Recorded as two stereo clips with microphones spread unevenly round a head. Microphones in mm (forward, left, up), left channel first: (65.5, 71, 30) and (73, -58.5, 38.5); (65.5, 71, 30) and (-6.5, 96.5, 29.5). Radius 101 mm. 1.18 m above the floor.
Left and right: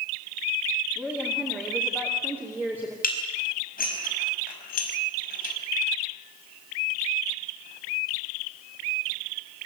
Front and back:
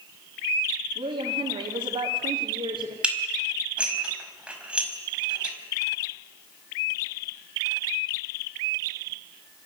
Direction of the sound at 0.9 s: 175° left.